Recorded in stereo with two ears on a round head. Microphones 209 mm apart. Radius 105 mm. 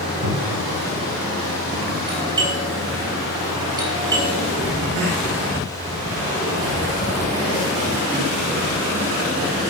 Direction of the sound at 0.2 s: 80° right.